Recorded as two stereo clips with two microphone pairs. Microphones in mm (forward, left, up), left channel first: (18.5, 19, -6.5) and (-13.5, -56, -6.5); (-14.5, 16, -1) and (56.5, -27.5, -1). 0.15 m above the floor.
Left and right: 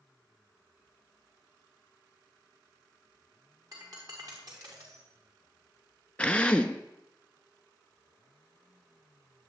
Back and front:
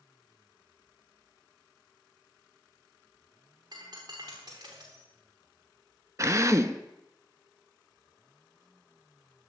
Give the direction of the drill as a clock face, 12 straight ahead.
12 o'clock.